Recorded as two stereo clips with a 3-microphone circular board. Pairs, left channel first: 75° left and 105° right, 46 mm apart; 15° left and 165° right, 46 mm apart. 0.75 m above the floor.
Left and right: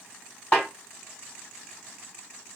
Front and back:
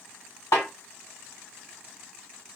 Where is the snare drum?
15° left, 1.8 m.